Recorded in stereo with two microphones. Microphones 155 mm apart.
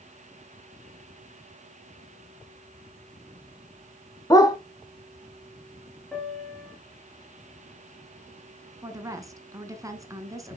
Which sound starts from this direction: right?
A woman speaking, at 8.8 s.